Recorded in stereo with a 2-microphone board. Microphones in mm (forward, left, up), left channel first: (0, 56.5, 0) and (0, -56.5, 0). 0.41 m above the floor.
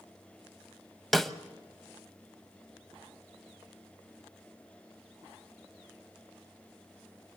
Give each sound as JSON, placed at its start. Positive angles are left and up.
{"t": 1.1, "sound": "a snare drum", "side_deg": 0, "distance_m": 1.0}